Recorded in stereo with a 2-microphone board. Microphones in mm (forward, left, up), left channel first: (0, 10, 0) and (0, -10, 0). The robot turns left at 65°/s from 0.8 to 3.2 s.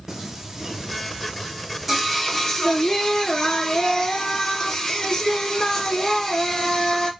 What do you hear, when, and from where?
0.1 s singing: 25° right (ahead or behind), 0.8 m; by 7.1 s 25° left (ahead or behind), 0.8 m